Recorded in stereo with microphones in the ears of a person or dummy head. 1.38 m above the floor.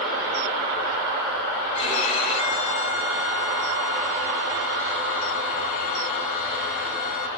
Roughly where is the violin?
Left.